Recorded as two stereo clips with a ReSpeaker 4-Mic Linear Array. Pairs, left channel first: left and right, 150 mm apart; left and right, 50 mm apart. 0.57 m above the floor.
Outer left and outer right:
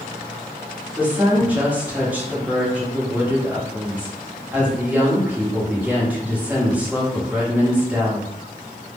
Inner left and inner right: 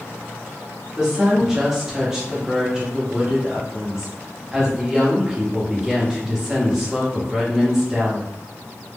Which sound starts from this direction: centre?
A woman speaking, at 1.0 s.